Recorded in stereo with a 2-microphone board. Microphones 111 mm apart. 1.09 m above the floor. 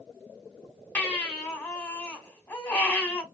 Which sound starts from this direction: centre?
A baby crying, at 0.9 s.